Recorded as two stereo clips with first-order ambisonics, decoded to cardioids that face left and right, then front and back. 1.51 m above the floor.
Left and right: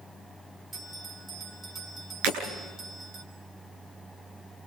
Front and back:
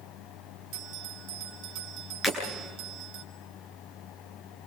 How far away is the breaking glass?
About 9 m.